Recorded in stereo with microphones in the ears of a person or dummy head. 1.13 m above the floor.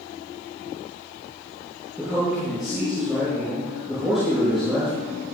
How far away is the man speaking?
About 7 m.